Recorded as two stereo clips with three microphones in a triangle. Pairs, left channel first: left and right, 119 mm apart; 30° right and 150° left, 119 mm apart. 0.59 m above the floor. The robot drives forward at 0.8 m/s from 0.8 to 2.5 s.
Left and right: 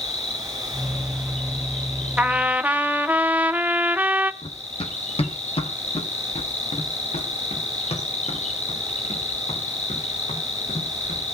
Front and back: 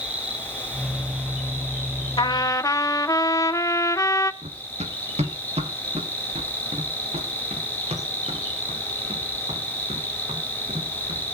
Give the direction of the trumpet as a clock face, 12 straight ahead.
1 o'clock.